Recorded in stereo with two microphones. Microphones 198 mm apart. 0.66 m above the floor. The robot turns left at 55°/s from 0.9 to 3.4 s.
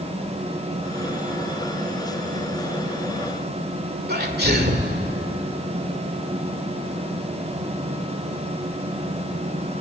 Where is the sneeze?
55° right (ahead or behind), 2 m.